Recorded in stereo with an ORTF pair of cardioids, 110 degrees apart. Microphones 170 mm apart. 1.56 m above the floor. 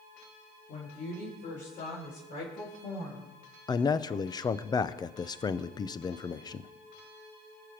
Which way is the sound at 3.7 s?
25° left.